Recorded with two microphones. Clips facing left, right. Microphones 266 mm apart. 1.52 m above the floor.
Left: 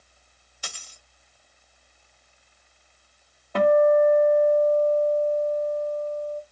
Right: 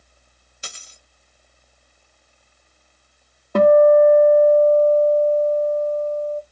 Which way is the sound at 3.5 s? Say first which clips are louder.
Right 6 dB; 45° right (ahead or behind).